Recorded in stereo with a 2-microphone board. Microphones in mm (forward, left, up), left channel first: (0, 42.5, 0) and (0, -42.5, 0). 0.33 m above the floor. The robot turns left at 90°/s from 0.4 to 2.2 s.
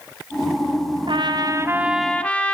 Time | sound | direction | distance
1.1 | a trumpet | 95° right | 1.8 m